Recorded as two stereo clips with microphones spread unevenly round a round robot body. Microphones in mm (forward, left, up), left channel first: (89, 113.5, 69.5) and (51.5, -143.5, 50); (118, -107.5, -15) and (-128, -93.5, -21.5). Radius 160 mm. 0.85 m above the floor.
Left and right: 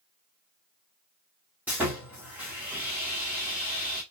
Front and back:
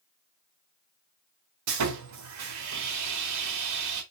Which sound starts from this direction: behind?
Sawing, at 1.7 s.